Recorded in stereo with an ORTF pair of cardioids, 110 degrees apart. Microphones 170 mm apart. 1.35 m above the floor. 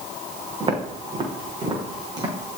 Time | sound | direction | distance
0.6 | footsteps | 30° right | 5 m